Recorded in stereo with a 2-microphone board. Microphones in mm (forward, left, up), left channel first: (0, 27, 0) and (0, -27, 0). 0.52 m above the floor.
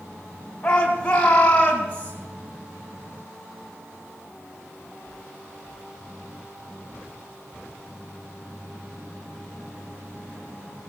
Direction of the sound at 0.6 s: 15° left (ahead or behind).